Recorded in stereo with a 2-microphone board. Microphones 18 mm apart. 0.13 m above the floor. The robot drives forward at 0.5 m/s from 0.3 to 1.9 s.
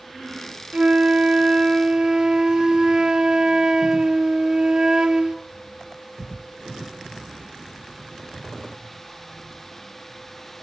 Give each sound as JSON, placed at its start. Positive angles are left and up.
{"t": 0.7, "sound": "a flute", "side_deg": -60, "distance_m": 0.7}